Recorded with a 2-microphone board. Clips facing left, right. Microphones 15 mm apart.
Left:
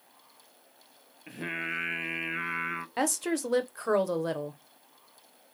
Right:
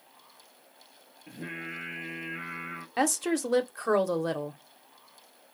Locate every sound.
1.3 s singing: 40° left (ahead or behind), 0.5 m
3.0 s a woman speaking: 5° right (ahead or behind), 0.6 m